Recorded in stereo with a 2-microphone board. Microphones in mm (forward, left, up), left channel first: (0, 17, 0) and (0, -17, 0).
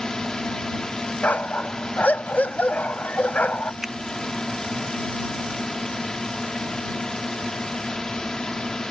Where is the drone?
20° left (ahead or behind).